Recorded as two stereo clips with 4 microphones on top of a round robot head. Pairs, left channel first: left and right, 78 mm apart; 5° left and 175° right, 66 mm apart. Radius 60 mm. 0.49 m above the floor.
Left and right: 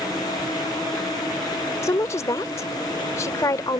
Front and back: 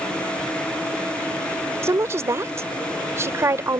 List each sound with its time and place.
1.8 s a woman speaking: 140° left